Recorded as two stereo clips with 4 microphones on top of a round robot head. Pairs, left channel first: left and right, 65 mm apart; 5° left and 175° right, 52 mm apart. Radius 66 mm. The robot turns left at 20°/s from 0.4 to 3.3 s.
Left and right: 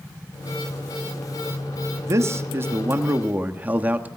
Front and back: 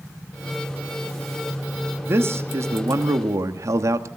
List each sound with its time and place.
2.1 s a man speaking: 135° right, 1.0 m; by 4.1 s 160° right, 1.0 m